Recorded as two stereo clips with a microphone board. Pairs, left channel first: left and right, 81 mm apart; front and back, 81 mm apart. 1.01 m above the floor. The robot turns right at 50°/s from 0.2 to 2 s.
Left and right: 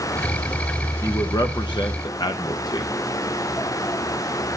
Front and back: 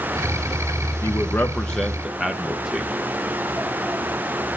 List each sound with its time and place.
1.0 s a man speaking: 45° left, 0.7 m; by 2.9 s 95° left, 0.7 m